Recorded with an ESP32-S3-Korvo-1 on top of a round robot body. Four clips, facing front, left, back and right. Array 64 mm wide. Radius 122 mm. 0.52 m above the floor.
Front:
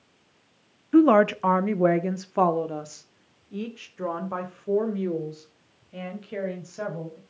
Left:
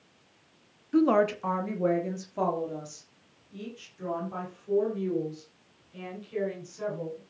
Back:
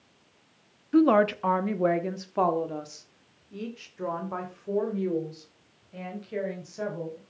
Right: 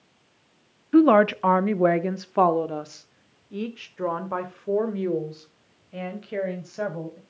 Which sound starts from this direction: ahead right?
A woman speaking, at 0.9 s.